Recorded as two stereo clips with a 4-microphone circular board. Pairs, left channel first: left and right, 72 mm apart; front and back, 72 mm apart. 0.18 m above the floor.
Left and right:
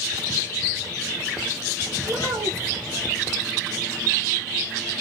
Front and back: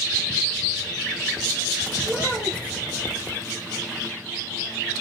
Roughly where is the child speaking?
Behind left.